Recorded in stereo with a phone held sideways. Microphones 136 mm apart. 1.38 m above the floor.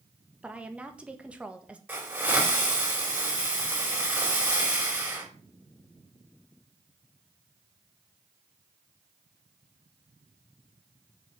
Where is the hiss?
10° right (ahead or behind), 5 m.